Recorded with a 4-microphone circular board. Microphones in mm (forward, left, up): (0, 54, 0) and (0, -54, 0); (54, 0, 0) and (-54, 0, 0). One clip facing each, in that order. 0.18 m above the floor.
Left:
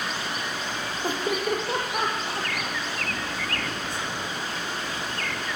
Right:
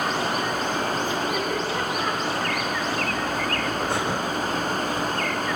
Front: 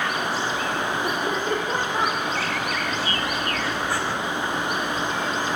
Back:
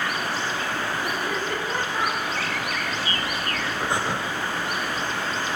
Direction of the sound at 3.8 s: 110° right.